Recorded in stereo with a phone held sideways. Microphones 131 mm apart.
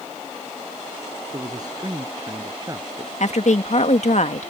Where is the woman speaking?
60° left (ahead or behind).